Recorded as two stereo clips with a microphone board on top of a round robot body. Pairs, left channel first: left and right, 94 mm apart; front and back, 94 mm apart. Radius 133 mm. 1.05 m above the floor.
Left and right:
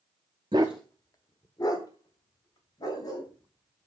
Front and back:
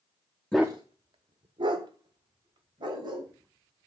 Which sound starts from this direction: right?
A dog barking, at 0.5 s.